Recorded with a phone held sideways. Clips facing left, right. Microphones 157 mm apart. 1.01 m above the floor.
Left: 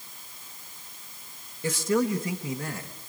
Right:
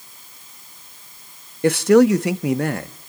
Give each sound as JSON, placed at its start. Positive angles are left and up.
{"t": 1.6, "sound": "a man speaking", "side_deg": -70, "distance_m": 1.0}